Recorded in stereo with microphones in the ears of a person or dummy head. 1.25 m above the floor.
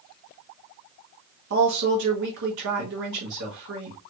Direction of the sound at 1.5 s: 70° right (ahead or behind).